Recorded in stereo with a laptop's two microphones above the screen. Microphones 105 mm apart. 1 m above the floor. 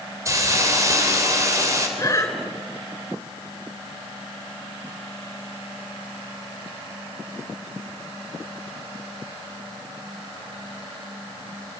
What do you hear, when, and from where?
0.2 s a hiss: 30° right (ahead or behind), 3.5 m
2.0 s breathing: 30° left (ahead or behind), 5.5 m